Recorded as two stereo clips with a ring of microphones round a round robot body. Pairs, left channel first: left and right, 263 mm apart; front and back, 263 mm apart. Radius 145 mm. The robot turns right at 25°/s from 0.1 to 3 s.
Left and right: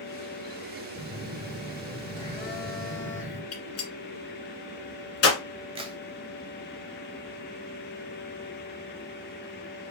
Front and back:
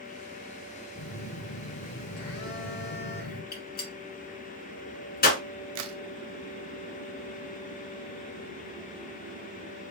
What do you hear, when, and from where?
0.9 s a phone buzzing: 15° right, 2.0 m; by 3.4 s 35° left, 2.0 m
3.5 s a gunshot: 55° left, 1.6 m
5.8 s a crack: 155° right, 0.6 m